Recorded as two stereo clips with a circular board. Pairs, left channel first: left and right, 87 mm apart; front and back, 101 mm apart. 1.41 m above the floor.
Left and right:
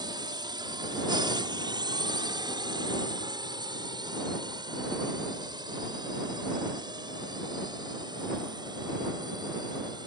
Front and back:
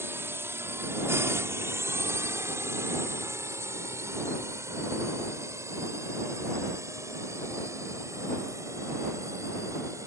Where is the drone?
115° right; by 10.1 s 120° right.